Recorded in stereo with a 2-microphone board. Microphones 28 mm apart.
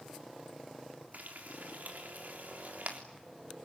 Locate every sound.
1.1 s frying: 75° right (ahead or behind), 3.5 m